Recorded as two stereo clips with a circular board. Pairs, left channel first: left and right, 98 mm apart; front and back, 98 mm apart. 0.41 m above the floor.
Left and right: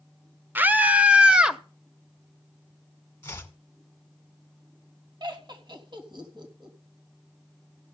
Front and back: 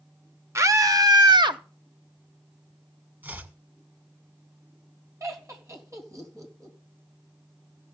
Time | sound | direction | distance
0.6 | a scream | 145° right | 0.9 m
3.2 | chopping | 130° left | 1.6 m
5.2 | laughter | 125° right | 3.5 m